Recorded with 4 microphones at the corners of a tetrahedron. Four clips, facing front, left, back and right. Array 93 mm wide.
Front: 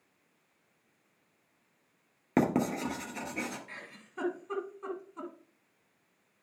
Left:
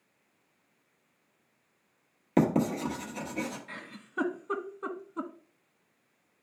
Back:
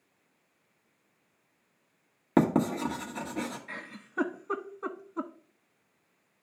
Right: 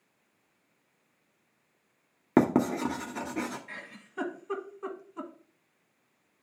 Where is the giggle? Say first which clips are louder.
Left 1 dB, back 5 dB; 150° left, 1.3 m.